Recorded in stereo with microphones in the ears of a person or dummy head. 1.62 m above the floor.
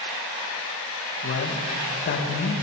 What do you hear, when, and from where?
1.2 s a man speaking: 50° left (ahead or behind), 2.5 m